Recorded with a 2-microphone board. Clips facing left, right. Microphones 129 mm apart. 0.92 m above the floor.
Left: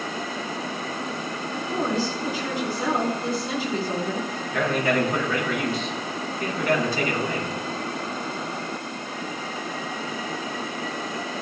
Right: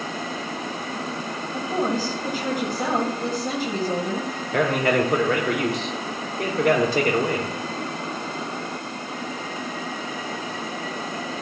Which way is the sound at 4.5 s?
80° right.